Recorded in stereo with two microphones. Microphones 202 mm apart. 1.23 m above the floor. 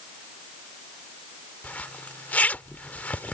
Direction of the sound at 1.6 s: 5° left (ahead or behind).